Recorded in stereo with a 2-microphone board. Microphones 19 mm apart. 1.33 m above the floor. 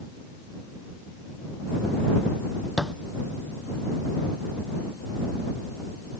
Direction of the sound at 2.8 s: 5° right (ahead or behind).